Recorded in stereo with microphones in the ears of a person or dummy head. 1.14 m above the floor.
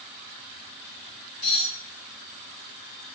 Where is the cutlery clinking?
20° left (ahead or behind), 1.5 m.